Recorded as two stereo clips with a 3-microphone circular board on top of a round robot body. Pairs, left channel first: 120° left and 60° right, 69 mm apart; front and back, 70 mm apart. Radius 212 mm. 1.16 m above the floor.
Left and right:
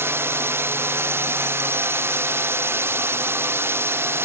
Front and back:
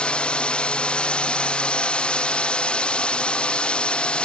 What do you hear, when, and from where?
0.0 s a drone: 65° right